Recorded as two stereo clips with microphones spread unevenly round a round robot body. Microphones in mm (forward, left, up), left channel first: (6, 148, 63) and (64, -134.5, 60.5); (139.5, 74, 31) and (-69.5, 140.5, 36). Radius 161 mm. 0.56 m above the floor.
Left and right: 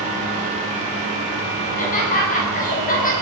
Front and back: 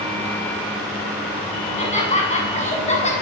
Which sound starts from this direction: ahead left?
Laughter, at 1.6 s.